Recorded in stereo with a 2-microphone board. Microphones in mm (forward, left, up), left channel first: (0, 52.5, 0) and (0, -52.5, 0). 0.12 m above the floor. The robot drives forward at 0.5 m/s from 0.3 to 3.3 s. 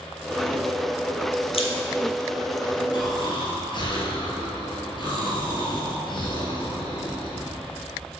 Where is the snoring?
45° left (ahead or behind), 1.6 m.